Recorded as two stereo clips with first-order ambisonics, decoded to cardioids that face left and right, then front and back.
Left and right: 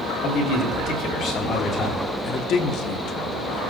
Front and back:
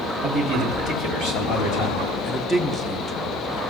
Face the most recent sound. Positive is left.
turn(degrees=75)